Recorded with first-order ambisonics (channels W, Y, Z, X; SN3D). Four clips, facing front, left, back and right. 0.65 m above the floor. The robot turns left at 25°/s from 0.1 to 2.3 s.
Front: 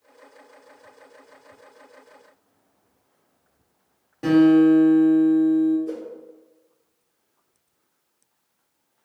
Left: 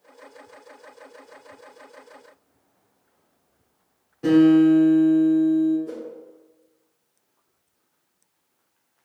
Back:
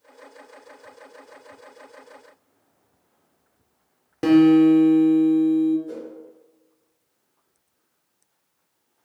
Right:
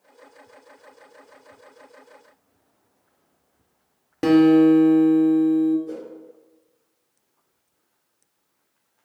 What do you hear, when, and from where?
4.2 s a guitar: 125° right, 0.7 m
5.9 s a whoosh: 35° left, 1.2 m